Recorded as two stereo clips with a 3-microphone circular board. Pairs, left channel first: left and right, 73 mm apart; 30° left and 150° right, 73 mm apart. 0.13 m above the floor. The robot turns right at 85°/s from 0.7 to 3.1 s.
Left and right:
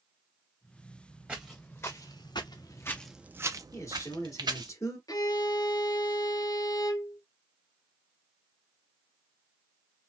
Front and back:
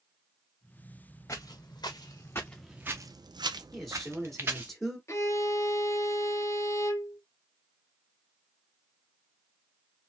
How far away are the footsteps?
About 1.7 m.